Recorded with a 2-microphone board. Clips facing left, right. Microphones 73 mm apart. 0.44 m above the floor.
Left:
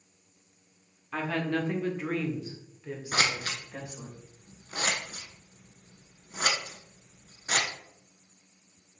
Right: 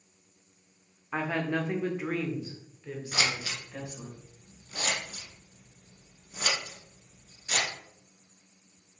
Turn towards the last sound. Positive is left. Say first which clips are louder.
# left 3 dB
turn(degrees=50)  # may be behind; listen again after turning